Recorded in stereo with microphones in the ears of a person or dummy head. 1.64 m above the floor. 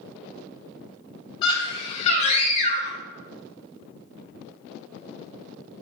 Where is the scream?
35° left (ahead or behind), 3 m; by 3.0 s 50° left (ahead or behind), 2.5 m.